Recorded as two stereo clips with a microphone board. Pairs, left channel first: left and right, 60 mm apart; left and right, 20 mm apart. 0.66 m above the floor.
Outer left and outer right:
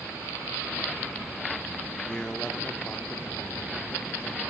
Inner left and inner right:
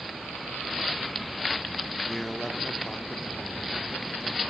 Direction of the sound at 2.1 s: 10° left (ahead or behind).